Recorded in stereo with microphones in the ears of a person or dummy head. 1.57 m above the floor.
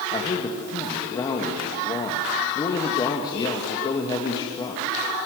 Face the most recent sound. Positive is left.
turn(degrees=25)  # may be behind; listen again after turning